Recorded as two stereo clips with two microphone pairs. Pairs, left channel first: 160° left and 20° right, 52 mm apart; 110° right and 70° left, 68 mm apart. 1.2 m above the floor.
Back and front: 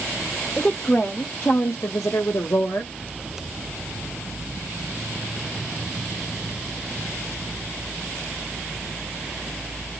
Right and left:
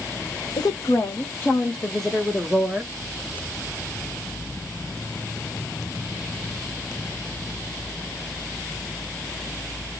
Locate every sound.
0.6 s a woman speaking: 135° right, 0.9 m; by 2.9 s 145° left, 1.3 m